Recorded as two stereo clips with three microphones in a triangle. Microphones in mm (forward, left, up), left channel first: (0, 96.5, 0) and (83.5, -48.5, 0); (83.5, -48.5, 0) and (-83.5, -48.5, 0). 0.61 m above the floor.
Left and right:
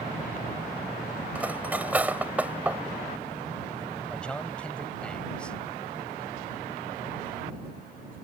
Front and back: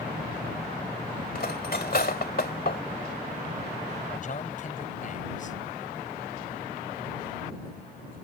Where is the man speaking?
35° left.